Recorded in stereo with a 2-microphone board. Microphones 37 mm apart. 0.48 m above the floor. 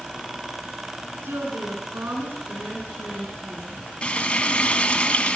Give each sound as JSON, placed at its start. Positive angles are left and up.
{"t": 1.2, "sound": "a woman speaking", "side_deg": -75, "distance_m": 4.5}
{"t": 4.0, "sound": "frying", "side_deg": 25, "distance_m": 2.5}